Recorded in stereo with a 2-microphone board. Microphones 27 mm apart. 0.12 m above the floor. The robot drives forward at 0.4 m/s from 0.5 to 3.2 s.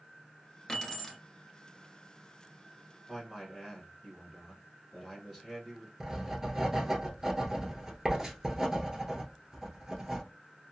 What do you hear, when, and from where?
0.7 s keys jangling: 10° left (ahead or behind), 1.3 m
3.1 s a man speaking: centre (ahead or behind), 1.3 m
6.0 s writing: 15° right (ahead or behind), 1.2 m